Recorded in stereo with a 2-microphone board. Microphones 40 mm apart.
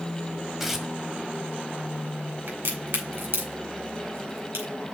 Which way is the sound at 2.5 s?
65° right (ahead or behind).